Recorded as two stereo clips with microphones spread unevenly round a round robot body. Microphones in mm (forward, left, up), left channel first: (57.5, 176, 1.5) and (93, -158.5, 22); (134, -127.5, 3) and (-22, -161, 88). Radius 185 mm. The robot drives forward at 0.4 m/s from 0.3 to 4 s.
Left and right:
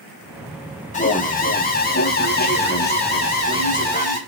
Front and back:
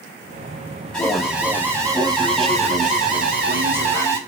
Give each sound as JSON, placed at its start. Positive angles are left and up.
{"t": 0.9, "sound": "an alarm", "azimuth_deg": 50, "distance_m": 1.0}